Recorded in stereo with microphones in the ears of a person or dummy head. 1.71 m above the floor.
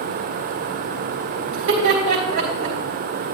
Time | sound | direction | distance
1.5 | laughter | 70° right (ahead or behind) | 3.5 m